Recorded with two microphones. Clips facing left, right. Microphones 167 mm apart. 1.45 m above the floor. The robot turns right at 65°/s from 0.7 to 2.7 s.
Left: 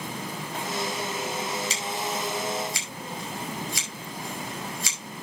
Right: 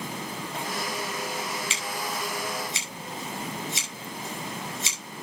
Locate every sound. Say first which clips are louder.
1.7 s scissors: left 2 dB; 40° left (ahead or behind), 5 m; by 5.2 s 20° right (ahead or behind), 5 m